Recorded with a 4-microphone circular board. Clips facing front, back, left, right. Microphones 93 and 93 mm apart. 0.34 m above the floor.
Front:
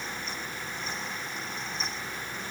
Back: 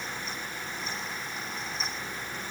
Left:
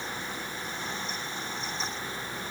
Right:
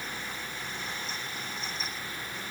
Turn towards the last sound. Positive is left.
No sound to turn to.